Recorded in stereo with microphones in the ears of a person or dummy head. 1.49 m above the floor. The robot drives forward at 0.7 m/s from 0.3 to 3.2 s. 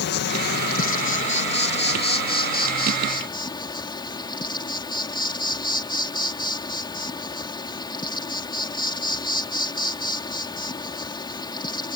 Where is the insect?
55° left (ahead or behind); by 12.0 s 20° left (ahead or behind).